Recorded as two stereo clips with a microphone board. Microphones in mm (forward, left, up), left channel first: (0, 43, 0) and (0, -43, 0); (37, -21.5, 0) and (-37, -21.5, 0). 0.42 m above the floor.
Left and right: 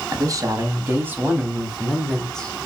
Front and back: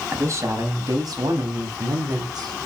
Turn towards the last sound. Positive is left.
turn(degrees=165)